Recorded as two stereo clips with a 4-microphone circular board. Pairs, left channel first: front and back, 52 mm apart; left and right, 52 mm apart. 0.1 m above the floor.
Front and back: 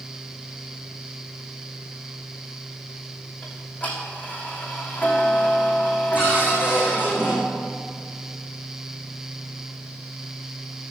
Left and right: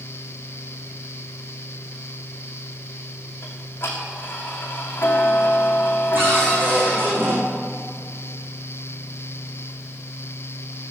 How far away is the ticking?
About 3 m.